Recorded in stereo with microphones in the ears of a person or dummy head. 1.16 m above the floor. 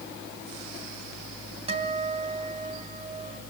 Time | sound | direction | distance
1.7 | a guitar | 30° right (ahead or behind) | 3 m